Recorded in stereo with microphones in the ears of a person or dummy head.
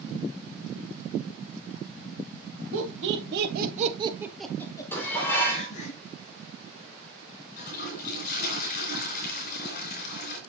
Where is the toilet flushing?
50° left (ahead or behind), 4 m.